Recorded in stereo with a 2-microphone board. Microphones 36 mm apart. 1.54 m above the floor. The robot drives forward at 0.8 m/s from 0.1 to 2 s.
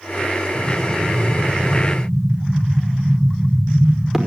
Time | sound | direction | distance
0.6 | an explosion | 15° right (ahead or behind) | 4 m